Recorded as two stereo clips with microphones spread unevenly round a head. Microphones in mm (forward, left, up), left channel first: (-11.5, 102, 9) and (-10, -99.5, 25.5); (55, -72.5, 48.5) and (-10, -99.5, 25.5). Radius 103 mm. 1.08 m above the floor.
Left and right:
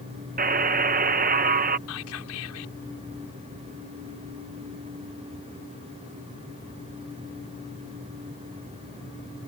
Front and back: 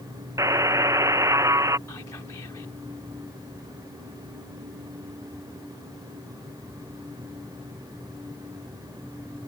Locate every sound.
0.4 s a buzzer: 135° right
1.9 s whispering: 90° left